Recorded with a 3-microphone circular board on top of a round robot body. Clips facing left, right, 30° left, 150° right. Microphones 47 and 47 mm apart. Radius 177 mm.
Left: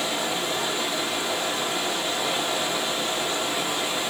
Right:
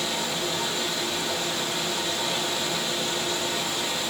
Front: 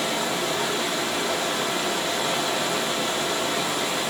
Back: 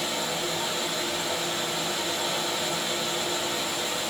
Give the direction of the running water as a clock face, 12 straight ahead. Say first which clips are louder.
Left 2 dB, front 4 dB; 11 o'clock.